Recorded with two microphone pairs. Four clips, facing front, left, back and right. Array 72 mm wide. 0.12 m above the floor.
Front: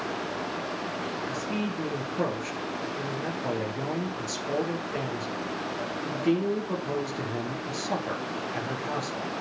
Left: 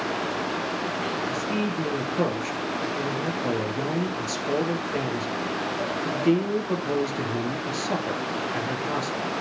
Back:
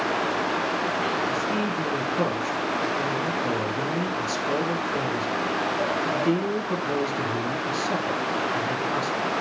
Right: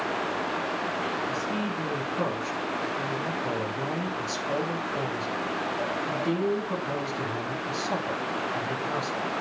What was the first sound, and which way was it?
A man speaking, 75° left.